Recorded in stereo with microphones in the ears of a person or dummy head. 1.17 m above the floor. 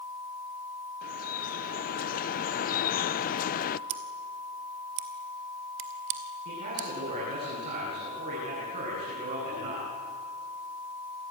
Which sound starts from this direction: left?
Dripping, at 1.0 s.